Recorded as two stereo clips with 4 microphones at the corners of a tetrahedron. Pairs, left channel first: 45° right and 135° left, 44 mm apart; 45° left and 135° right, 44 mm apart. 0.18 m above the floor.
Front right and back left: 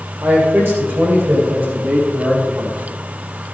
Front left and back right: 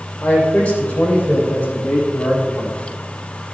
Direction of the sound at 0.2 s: 105° left.